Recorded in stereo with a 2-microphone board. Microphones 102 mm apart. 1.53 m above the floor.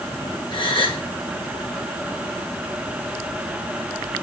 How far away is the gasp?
About 1.5 m.